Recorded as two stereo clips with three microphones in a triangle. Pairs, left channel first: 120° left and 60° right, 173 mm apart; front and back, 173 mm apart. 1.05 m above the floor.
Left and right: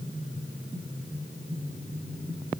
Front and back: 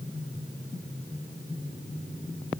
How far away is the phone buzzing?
No phone buzzing in this recording.